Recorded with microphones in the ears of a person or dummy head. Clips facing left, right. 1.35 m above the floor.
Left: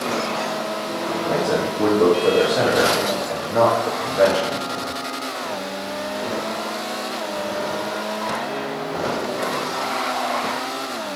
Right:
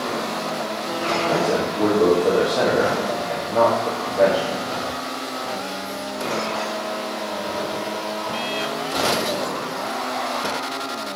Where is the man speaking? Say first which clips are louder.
Left 1 dB; 5° left (ahead or behind), 2 m.